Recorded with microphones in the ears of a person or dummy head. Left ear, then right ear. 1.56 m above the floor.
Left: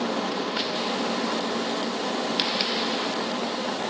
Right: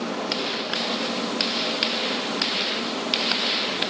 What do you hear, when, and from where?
Only background noise.